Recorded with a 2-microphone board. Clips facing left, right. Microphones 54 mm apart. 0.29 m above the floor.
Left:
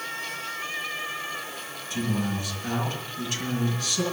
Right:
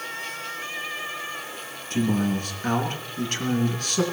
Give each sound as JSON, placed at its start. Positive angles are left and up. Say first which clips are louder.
{"t": 1.9, "sound": "a man speaking", "louder": "right 5 dB", "side_deg": -45, "distance_m": 4.0}